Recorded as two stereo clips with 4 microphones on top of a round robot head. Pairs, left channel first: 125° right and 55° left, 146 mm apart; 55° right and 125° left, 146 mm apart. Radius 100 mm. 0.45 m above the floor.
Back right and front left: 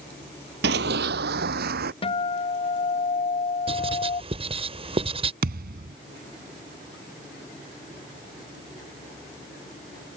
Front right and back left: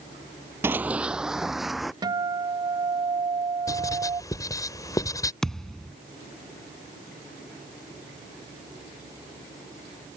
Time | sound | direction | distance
0.6 | running footsteps | 50° left | ?
2.0 | a guitar | 175° right | ?
3.7 | writing | 10° left | ?
5.4 | a thud | 30° left | ?